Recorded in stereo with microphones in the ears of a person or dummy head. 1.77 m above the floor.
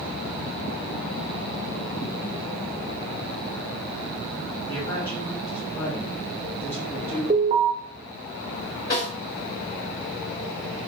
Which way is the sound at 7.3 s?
40° right (ahead or behind).